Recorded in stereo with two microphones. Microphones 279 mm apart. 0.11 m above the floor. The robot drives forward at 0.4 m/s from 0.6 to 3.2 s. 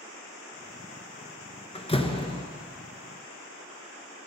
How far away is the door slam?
About 1.1 m.